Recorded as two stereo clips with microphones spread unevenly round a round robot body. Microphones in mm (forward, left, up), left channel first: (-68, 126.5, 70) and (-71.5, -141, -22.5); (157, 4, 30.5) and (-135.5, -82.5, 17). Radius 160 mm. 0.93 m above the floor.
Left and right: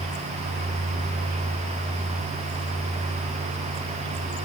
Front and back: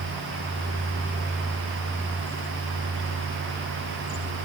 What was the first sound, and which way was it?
Only background noise.